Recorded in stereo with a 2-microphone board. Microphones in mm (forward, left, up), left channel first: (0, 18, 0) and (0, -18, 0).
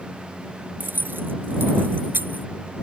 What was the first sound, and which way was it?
Keys jangling, 85° right.